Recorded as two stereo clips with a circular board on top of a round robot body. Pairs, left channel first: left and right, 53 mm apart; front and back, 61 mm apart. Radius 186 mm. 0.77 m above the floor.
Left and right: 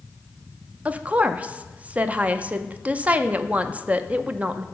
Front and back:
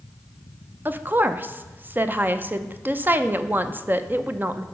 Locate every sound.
0.8 s a woman speaking: 140° right, 0.7 m